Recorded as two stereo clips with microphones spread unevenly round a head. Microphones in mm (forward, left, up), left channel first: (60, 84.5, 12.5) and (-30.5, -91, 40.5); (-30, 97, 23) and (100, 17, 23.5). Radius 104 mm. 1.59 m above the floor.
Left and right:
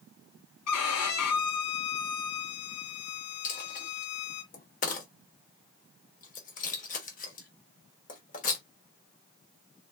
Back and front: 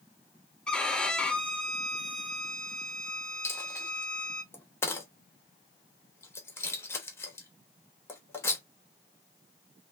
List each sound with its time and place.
0.7 s a violin: 65° left, 0.7 m
3.4 s a dropped coin: 90° left, 1.0 m